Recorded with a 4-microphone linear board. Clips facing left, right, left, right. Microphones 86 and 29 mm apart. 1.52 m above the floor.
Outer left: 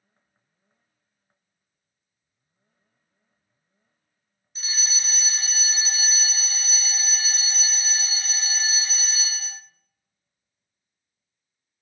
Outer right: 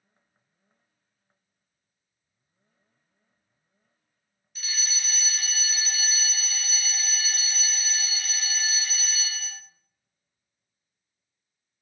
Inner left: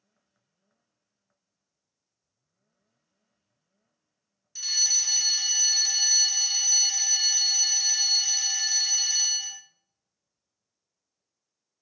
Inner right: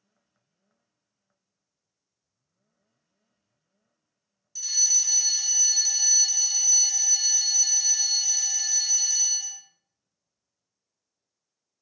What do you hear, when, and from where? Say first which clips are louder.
4.5 s a fire alarm: outer left 1 dB, inner left 1 dB; 30° left (ahead or behind), 0.7 m